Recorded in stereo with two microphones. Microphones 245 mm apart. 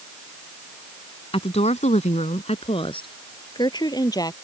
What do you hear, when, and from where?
1.3 s a woman speaking: 25° left (ahead or behind); by 4.3 s 15° left (ahead or behind)